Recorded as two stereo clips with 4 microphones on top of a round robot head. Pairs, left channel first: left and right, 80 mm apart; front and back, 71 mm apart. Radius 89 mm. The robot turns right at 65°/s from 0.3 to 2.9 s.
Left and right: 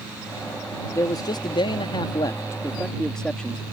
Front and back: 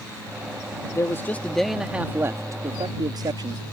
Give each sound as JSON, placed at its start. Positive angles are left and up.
{"t": 0.9, "sound": "a man speaking", "azimuth_deg": 45}